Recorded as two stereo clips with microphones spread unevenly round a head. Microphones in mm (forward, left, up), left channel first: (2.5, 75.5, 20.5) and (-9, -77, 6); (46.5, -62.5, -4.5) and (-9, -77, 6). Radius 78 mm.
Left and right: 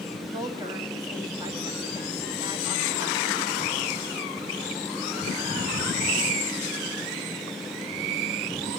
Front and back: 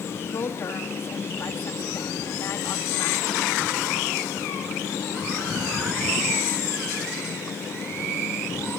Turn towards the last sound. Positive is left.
turn(degrees=-25)